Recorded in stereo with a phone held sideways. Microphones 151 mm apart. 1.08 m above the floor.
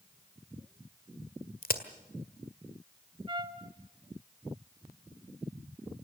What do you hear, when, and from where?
1.6 s a crack: 75° left (ahead or behind), 1.7 m
3.3 s a trumpet: 35° right (ahead or behind), 1.3 m